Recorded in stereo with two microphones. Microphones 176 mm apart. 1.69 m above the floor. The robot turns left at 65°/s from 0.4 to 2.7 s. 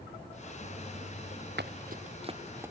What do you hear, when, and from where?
1.6 s running footsteps: 70° right (ahead or behind); by 2.7 s 10° right (ahead or behind)